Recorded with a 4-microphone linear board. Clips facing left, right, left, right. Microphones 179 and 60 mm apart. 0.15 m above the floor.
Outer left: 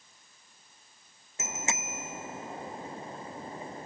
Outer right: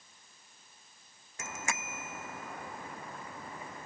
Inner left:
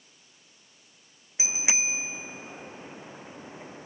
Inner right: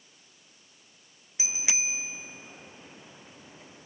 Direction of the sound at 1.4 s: 20° left (ahead or behind).